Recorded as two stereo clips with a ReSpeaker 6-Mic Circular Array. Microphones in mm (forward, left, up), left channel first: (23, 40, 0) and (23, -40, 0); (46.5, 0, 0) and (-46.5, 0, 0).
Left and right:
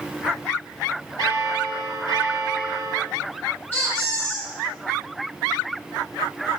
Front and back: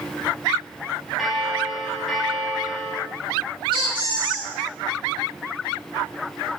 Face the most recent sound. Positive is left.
turn(degrees=155)